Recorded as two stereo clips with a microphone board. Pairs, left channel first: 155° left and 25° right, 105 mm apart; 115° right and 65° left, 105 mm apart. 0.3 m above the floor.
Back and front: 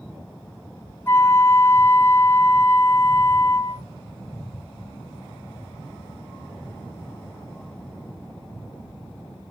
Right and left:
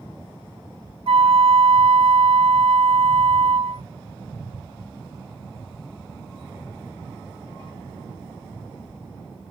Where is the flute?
90° left, 0.7 m.